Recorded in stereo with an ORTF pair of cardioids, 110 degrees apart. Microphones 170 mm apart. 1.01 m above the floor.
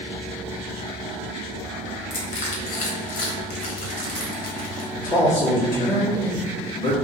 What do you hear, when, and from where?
2.1 s crushing: 55° left, 1.3 m
4.9 s a man speaking: 65° left, 1.9 m